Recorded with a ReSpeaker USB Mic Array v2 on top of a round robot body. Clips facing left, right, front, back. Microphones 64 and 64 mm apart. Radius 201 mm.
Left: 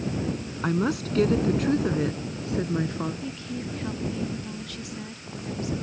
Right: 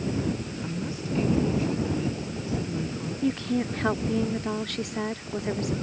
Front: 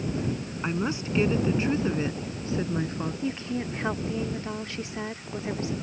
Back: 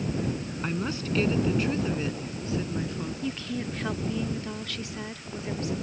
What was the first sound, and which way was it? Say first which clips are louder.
A woman speaking: left 11 dB, front 3 dB; 75° left.